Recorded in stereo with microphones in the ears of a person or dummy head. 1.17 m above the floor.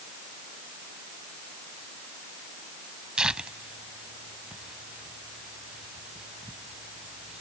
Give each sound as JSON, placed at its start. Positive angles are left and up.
{"t": 3.2, "sound": "tearing paper", "side_deg": 0}